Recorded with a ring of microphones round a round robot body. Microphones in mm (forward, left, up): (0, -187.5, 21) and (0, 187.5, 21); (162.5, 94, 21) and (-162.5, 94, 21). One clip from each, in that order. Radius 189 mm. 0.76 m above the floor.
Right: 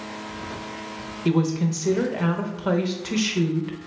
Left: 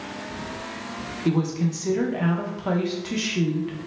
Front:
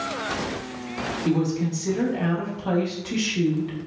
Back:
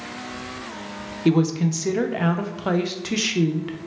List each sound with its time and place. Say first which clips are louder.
1.2 s a woman speaking: right 2 dB, back 6 dB; 165° right, 0.6 m